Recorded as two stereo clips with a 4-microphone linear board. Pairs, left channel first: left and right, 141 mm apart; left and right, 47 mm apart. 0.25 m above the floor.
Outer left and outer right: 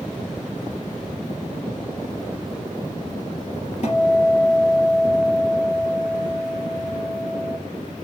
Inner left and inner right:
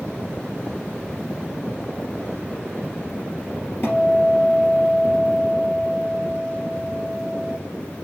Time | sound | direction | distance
3.8 | a guitar | 50° left (ahead or behind) | 3.5 m